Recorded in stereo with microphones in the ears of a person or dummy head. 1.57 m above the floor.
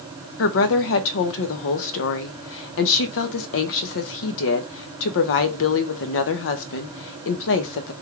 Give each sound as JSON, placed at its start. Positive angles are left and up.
{"t": 0.4, "sound": "a woman speaking", "side_deg": 60, "distance_m": 0.7}